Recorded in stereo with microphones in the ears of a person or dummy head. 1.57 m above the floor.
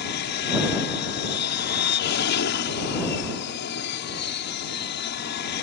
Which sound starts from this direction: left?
An aircraft, at 0.0 s.